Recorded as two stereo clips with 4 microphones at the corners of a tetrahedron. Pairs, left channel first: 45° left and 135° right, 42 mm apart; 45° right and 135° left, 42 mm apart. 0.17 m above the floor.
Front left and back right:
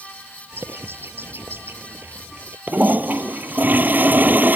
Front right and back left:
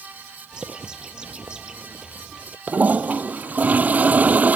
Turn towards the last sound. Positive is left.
turn(degrees=-175)